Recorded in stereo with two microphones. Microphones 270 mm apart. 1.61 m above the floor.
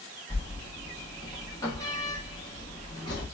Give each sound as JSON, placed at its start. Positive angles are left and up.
{"t": 0.3, "sound": "a sliding door", "side_deg": 15, "distance_m": 1.5}